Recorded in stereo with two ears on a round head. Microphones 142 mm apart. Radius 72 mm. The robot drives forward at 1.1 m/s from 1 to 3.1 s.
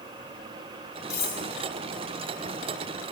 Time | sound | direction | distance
1.1 | cutlery clinking | 20° left (ahead or behind) | 4.5 m